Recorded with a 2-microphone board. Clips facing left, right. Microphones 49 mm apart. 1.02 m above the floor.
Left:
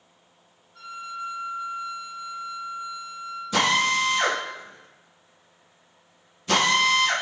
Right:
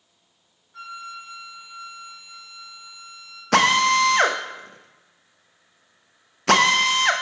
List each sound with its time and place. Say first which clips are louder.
0.7 s a flute: left 1 dB; 85° right, 3 m
3.5 s a drill: right 5 dB; 75° right (ahead or behind), 0.7 m